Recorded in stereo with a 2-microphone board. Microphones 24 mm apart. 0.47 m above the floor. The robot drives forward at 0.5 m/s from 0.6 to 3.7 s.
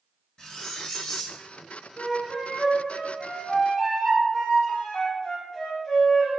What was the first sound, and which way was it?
Cutlery clinking, 35° left (ahead or behind).